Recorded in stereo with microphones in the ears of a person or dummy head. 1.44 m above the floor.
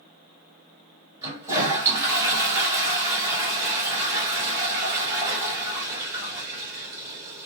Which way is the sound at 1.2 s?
15° right (ahead or behind).